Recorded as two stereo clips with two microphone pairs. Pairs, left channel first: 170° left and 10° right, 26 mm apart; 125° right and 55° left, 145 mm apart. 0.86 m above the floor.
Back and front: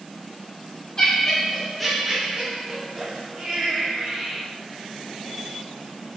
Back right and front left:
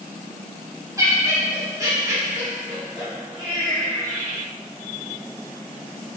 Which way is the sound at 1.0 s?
115° left.